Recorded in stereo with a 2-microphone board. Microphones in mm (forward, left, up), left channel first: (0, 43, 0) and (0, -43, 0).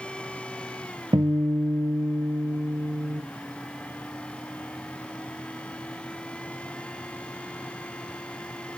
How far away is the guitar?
About 1.1 m.